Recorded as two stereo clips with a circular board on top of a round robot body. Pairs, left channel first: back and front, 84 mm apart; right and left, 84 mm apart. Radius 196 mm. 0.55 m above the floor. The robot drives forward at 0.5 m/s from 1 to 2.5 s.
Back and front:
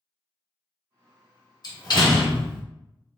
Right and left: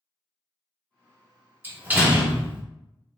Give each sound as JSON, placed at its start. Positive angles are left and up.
{"t": 1.6, "sound": "a door slam", "azimuth_deg": 155, "distance_m": 1.2}